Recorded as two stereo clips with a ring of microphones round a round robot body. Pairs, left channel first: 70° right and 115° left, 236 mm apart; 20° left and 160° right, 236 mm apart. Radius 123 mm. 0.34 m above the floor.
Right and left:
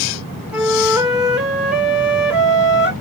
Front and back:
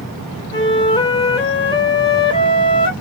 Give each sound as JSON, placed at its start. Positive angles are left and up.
{"t": 0.5, "sound": "a flute", "azimuth_deg": 35, "distance_m": 1.5}